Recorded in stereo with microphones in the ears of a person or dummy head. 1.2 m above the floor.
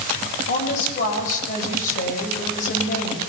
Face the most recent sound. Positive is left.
turn(degrees=45)  # may be behind; listen again after turning